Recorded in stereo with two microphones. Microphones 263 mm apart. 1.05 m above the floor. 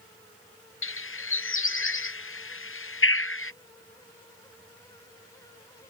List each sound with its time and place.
0.8 s a bird: 55° left (ahead or behind)